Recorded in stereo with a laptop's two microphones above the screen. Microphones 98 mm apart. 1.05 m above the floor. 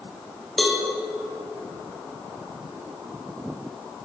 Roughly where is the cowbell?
Centre.